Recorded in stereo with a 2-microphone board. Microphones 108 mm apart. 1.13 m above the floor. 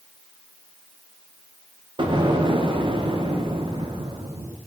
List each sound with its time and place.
2.0 s an explosion: 50° right (ahead or behind), 0.8 m